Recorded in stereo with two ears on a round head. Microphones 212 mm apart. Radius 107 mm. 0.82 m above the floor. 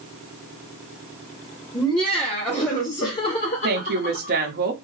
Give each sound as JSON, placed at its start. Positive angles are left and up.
{"t": 1.7, "sound": "laughter", "side_deg": 0, "distance_m": 1.8}
{"t": 3.6, "sound": "a woman speaking", "side_deg": -40, "distance_m": 0.8}